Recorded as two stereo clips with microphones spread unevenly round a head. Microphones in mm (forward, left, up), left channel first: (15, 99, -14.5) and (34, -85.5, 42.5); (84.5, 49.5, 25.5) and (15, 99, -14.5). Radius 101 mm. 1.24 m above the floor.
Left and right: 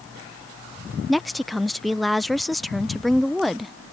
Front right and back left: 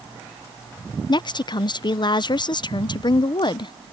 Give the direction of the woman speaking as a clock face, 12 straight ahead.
12 o'clock.